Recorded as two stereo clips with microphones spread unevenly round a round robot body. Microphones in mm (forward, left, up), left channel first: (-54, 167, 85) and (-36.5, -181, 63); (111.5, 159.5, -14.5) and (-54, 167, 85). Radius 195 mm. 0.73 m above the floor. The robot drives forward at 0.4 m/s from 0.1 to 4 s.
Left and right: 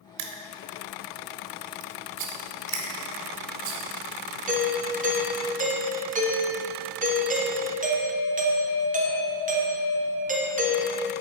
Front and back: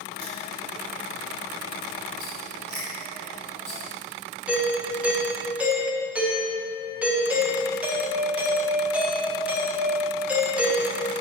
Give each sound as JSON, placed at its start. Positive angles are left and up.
{"t": 0.2, "sound": "crushing", "azimuth_deg": -80, "distance_m": 0.8}
{"t": 2.2, "sound": "a rattle", "azimuth_deg": -80, "distance_m": 0.6}
{"t": 4.5, "sound": "a doorbell", "azimuth_deg": -45, "distance_m": 1.1}